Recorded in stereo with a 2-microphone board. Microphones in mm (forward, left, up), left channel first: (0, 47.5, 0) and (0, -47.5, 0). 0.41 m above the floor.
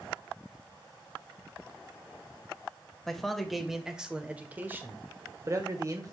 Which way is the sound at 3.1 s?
5° left (ahead or behind).